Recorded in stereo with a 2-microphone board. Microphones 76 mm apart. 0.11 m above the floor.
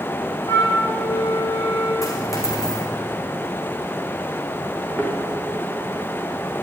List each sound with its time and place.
0.5 s a flute: 55° left (ahead or behind), 9 m
2.0 s a dropped coin: 45° left (ahead or behind), 3.5 m
5.0 s a thud: 20° left (ahead or behind), 5 m